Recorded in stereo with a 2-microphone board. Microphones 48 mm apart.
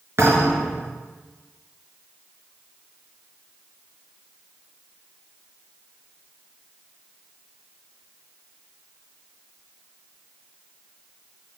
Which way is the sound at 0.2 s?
60° right (ahead or behind).